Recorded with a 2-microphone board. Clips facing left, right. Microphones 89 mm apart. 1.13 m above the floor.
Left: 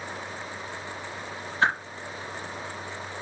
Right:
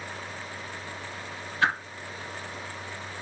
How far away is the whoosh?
About 5 m.